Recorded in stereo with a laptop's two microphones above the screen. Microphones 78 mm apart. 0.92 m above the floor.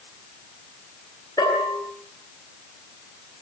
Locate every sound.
1.4 s a bell: 60° left (ahead or behind), 9 m